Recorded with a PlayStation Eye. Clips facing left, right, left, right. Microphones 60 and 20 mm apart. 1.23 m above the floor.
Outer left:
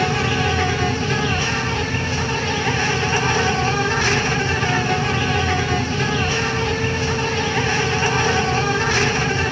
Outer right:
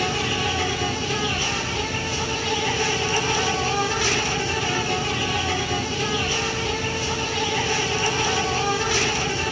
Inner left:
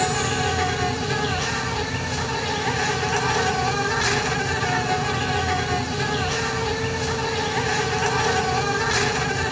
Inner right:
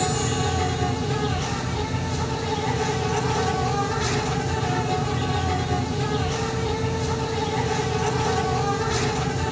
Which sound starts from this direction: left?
An insect, at 0.0 s.